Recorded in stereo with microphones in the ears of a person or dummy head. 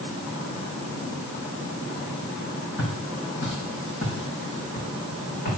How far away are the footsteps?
About 3.5 m.